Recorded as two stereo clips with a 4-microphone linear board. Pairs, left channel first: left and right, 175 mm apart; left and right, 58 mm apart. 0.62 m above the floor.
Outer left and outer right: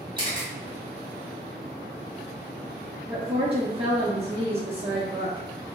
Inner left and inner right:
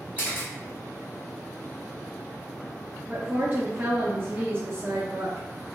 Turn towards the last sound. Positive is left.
turn(degrees=-30)  # may be behind; listen again after turning